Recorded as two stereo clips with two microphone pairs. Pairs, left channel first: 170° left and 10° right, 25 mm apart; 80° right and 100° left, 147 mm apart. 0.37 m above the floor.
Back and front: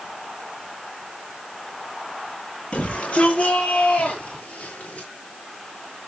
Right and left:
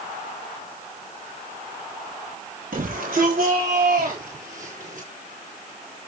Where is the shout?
120° left, 8 m; by 5.1 s 130° left, 5.5 m.